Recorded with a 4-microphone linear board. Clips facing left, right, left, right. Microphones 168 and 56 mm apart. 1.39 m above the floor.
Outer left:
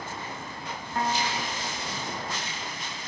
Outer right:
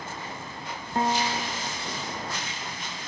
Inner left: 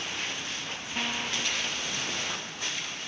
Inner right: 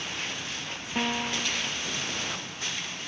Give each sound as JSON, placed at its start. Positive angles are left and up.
{"t": 0.9, "sound": "a piano", "side_deg": -25}